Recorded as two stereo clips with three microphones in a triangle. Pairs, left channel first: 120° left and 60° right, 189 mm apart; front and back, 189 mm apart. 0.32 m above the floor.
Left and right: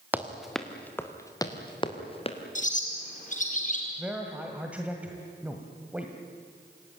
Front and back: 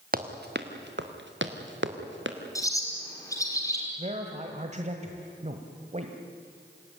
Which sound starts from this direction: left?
A bird, at 2.5 s.